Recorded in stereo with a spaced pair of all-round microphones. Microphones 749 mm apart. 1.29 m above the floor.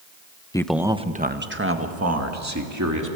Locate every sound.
0.5 s a man speaking: 5° left (ahead or behind), 0.7 m; by 3.2 s 20° right (ahead or behind), 2.5 m